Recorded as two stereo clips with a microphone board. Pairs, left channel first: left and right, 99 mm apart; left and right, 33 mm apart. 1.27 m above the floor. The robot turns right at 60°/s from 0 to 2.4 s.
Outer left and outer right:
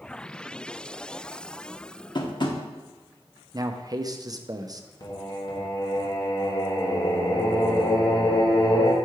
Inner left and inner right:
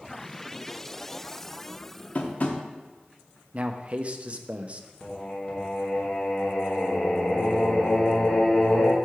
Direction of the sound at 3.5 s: 40° right (ahead or behind).